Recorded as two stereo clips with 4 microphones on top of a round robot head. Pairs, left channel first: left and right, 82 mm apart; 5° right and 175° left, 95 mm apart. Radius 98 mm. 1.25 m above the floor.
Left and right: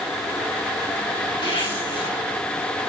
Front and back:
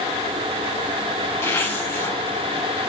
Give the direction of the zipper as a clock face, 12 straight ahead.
10 o'clock.